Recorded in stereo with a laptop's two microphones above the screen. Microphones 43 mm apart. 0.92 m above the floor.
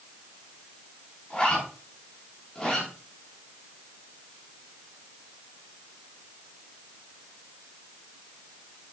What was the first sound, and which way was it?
A zipper, 15° left (ahead or behind).